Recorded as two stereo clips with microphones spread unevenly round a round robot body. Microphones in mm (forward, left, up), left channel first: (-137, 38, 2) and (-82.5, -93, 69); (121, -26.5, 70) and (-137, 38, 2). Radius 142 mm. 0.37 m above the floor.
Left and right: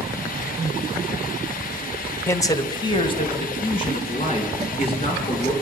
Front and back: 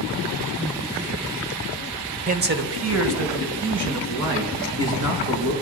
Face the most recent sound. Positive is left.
turn(degrees=150)